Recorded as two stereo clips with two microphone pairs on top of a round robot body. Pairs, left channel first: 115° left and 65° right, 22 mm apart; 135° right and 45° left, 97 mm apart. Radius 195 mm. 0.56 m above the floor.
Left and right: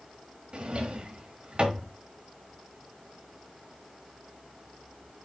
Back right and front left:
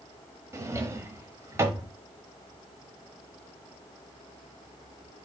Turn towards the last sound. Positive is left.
turn(degrees=-15)